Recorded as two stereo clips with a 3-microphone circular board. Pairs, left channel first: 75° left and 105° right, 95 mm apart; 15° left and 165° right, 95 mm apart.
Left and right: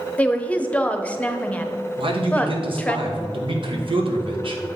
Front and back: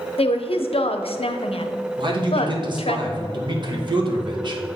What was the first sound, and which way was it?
A woman speaking, straight ahead.